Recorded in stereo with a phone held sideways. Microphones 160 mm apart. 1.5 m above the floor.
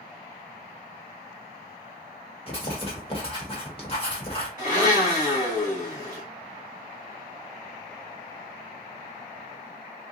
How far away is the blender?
About 3 m.